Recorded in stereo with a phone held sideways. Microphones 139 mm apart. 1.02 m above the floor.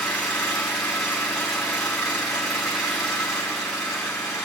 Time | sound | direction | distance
0.0 | an engine running | centre (ahead or behind) | 9.5 m